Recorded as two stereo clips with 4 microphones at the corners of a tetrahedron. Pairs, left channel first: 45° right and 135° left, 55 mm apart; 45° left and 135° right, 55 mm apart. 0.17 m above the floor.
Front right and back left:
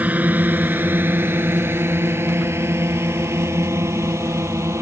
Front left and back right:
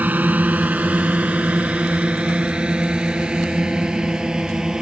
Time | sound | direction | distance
0.0 | a drone | straight behind | ?